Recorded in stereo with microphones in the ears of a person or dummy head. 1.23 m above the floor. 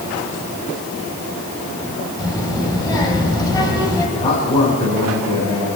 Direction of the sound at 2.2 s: 20° left (ahead or behind).